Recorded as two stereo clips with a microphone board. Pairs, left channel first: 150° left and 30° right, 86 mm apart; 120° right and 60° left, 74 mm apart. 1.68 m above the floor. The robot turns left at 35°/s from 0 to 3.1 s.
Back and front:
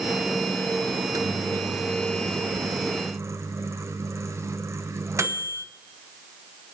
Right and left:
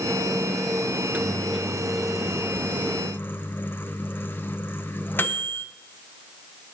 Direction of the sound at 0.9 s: 5° left.